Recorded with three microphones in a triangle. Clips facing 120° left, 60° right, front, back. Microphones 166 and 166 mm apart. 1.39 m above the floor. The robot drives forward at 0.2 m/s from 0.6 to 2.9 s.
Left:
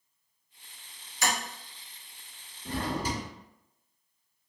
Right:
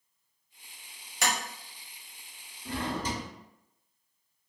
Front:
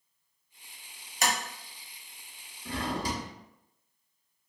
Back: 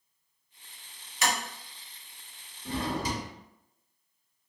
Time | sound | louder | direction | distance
1.2 | tapping | even, even | 45° right | 1.0 m
2.6 | a drawer | left 1 dB, back 1 dB | 175° right | 1.0 m